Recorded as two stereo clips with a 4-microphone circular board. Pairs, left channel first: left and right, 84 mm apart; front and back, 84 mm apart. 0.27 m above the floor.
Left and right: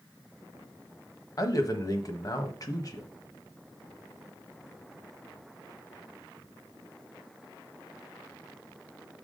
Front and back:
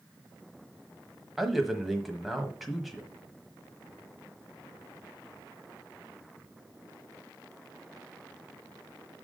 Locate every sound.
1.4 s a man speaking: 95° left, 1.3 m